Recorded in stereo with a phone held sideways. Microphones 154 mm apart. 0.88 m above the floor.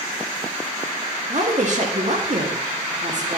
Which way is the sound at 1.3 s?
55° right (ahead or behind).